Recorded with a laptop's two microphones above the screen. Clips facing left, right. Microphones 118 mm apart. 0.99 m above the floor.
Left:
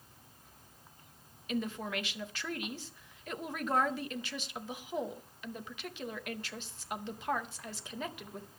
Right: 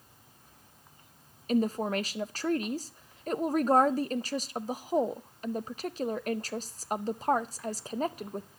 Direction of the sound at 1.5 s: 45° right (ahead or behind).